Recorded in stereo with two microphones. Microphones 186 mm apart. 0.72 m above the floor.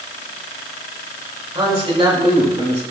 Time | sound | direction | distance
1.6 | a man speaking | 25° right (ahead or behind) | 2.5 m